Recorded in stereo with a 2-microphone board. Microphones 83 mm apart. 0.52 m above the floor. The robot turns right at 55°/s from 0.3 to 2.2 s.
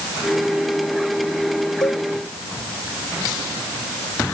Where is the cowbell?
50° left (ahead or behind); by 2.0 s 40° left (ahead or behind).